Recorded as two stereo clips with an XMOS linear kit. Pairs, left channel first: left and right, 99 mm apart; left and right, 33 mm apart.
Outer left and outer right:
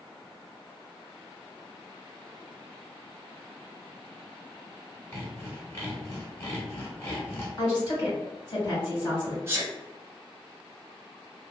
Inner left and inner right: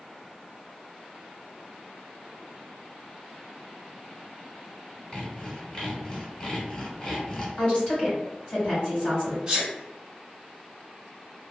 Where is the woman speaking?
40° left (ahead or behind), 1.9 m.